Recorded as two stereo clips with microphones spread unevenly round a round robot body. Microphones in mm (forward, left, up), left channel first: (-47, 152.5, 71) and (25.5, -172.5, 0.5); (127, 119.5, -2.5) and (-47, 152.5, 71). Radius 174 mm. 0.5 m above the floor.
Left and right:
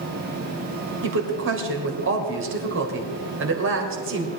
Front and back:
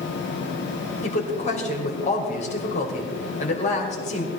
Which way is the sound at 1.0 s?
40° right.